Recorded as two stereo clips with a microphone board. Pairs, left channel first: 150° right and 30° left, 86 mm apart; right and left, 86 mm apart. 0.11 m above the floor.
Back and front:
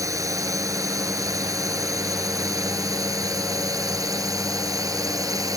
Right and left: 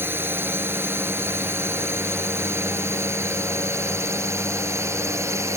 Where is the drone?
40° left; by 5.6 s 50° left.